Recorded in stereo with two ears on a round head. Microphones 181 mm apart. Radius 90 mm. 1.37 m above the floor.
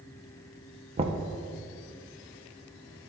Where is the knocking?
30° right (ahead or behind), 0.6 m.